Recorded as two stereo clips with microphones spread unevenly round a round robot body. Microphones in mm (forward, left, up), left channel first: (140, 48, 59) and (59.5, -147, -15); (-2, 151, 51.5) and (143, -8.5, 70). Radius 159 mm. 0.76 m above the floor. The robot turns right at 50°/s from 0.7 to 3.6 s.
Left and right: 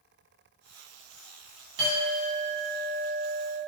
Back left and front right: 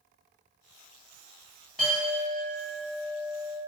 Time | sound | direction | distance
1.8 | a clink | 145° right | 1.2 m